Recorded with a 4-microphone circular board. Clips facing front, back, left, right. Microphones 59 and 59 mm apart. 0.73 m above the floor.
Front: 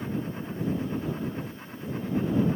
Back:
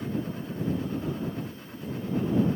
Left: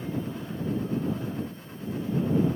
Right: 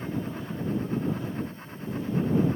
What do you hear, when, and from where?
Only background noise.